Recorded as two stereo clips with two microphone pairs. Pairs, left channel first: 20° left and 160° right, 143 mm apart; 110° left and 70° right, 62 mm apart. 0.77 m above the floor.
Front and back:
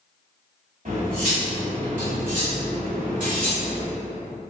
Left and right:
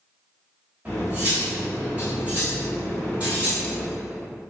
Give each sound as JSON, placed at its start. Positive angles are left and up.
{"t": 0.8, "sound": "cutlery clinking", "azimuth_deg": -140, "distance_m": 1.8}